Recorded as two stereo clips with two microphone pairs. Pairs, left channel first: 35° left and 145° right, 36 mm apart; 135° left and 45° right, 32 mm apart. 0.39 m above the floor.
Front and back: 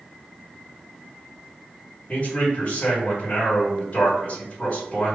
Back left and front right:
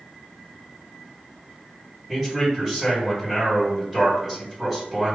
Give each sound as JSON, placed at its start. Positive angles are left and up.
{"t": 2.1, "sound": "a man speaking", "azimuth_deg": 25, "distance_m": 1.7}